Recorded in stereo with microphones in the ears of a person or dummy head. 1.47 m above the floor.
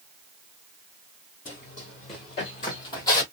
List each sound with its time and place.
1.4 s running footsteps: 30° left (ahead or behind), 1.9 m; by 3.2 s 25° left (ahead or behind), 2 m